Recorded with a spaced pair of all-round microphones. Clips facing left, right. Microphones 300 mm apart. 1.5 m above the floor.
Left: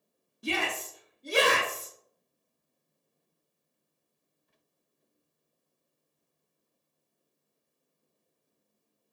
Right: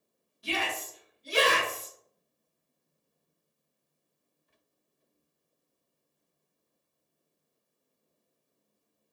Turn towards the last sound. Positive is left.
turn(degrees=60)  # may be behind; listen again after turning